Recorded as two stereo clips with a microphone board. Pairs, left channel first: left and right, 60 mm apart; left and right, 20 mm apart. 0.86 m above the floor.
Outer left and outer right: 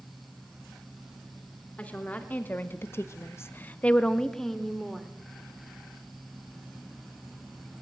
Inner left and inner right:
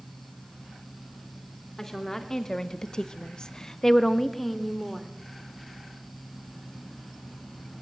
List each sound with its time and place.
1.8 s a woman speaking: 25° left (ahead or behind), 2.5 m; by 5.1 s centre (ahead or behind), 2.5 m